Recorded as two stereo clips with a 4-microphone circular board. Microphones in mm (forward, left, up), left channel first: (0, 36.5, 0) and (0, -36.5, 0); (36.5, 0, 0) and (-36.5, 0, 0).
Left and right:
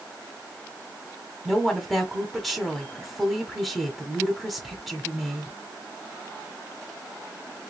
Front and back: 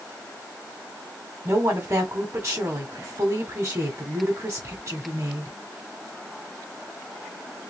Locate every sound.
1.4 s a woman speaking: 175° left, 1.4 m